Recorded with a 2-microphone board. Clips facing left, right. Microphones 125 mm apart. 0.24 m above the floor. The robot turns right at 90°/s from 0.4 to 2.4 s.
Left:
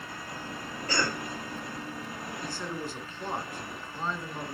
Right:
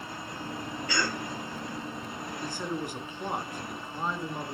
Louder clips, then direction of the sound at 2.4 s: Right 3 dB; 15° right (ahead or behind).